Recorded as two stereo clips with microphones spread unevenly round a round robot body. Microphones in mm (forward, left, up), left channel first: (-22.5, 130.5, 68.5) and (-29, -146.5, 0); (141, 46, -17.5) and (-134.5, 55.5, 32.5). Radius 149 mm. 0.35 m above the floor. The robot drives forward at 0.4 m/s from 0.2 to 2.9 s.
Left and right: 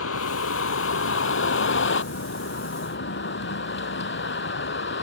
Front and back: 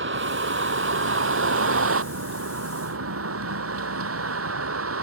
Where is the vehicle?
130° left; by 5.0 s 140° left.